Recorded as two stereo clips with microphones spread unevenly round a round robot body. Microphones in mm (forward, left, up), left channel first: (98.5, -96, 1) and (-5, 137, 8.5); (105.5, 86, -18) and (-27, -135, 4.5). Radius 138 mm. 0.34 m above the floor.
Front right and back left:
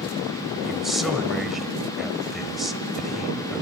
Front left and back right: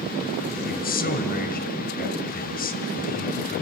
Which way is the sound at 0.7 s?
25° left.